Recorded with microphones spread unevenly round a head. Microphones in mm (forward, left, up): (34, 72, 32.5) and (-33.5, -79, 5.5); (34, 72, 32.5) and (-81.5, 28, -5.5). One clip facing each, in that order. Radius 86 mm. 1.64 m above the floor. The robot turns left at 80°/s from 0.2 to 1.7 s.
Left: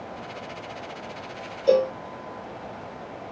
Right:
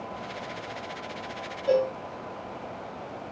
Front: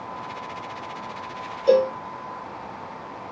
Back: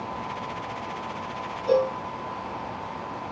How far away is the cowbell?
About 0.7 m.